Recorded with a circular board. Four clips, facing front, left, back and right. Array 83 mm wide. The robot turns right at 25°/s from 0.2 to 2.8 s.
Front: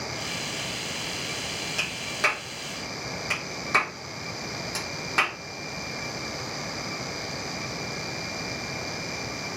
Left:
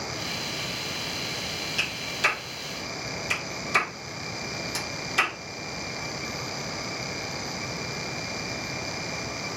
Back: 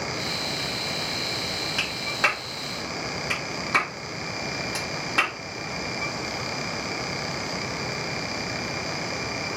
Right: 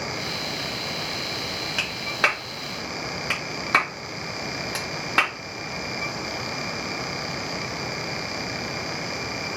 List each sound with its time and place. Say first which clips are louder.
1.8 s a clap: right 4 dB, back 2 dB; 115° right, 2 m; by 5.3 s 90° right, 2 m